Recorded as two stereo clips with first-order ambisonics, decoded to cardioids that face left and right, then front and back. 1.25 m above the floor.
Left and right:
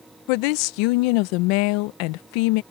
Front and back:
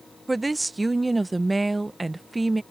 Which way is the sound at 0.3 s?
95° left.